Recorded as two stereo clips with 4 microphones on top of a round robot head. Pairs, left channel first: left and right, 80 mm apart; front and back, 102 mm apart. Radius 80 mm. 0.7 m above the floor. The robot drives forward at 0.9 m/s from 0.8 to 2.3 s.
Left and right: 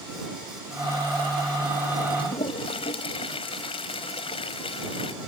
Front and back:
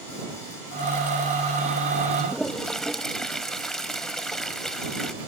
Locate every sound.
2.2 s a toilet flushing: 85° left